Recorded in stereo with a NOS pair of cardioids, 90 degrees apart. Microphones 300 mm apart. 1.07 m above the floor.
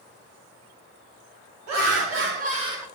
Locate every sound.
1.7 s laughter: 60° right, 1.8 m; by 2.9 s 5° right, 1.6 m